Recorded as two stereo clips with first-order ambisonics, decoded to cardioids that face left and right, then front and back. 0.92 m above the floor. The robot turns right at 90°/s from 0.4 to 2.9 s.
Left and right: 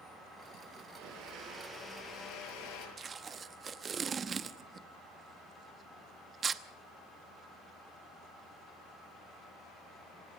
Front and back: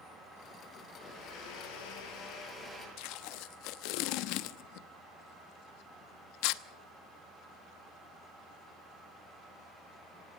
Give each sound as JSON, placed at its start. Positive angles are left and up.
{"t": 1.0, "sound": "a blender", "azimuth_deg": -80, "distance_m": 8.5}
{"t": 3.0, "sound": "tape being pulled", "azimuth_deg": -20, "distance_m": 0.8}